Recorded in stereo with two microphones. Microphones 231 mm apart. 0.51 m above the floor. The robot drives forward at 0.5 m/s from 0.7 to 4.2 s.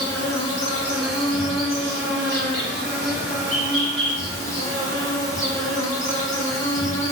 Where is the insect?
75° left (ahead or behind), 1.4 m; by 7.1 s 30° left (ahead or behind), 2.5 m.